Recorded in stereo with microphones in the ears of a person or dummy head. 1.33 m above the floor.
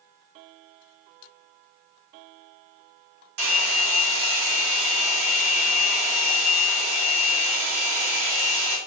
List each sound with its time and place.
3.4 s a hair dryer: 60° right (ahead or behind), 3 m